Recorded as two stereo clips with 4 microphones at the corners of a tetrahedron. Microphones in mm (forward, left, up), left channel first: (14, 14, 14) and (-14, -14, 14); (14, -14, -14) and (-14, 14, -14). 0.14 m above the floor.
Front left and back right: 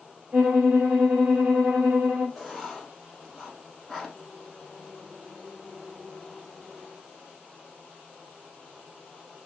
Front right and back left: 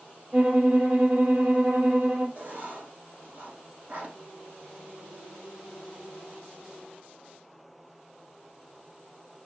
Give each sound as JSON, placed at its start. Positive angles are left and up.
{"t": 0.3, "sound": "a violin", "azimuth_deg": 175, "distance_m": 1.8}
{"t": 2.4, "sound": "writing", "azimuth_deg": 130, "distance_m": 1.3}